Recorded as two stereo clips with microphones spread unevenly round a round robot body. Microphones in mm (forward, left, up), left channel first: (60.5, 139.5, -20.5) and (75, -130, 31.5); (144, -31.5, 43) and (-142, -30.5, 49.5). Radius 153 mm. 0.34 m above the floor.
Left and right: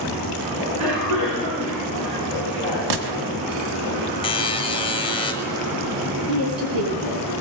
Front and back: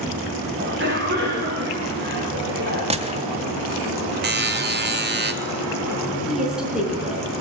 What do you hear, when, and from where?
0.6 s a cough: 130° right, 4.5 m
2.9 s a gunshot: 110° right, 1.5 m
4.2 s a buzzer: 145° left, 1.5 m
6.3 s a woman speaking: 90° right, 4.5 m